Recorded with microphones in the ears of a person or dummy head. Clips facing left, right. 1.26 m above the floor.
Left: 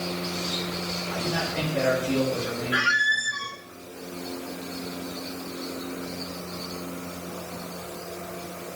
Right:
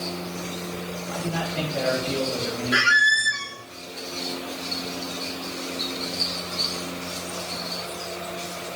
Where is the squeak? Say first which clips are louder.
Right 3 dB; 30° right (ahead or behind), 0.6 m.